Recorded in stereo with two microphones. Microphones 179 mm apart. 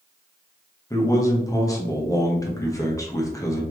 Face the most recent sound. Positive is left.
turn(degrees=20)  # may be behind; listen again after turning